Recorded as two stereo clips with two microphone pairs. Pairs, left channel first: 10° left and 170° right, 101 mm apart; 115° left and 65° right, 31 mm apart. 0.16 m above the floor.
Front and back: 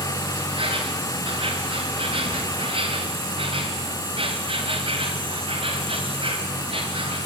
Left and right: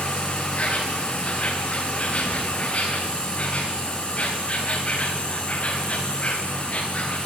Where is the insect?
165° left, 4 m.